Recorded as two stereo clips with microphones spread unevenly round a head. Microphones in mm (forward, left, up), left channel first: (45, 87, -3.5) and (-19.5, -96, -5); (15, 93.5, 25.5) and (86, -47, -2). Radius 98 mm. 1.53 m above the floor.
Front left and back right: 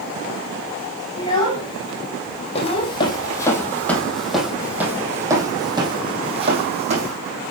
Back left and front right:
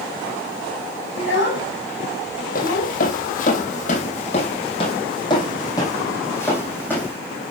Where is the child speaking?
140° left, 5 m; by 2.9 s 135° left, 3 m.